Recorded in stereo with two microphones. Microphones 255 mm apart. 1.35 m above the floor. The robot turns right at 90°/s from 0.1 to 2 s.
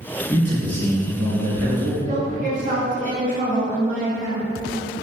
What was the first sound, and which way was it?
A man speaking, 155° left.